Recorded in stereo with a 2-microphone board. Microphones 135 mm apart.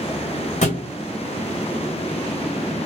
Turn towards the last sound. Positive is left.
turn(degrees=65)  # may be behind; listen again after turning